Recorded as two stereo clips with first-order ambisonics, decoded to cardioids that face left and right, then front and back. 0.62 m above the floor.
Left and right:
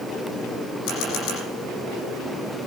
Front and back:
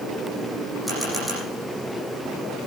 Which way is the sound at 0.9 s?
95° left.